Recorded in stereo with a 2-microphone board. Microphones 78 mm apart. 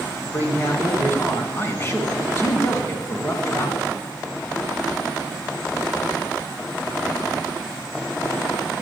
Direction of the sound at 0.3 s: 30° left (ahead or behind).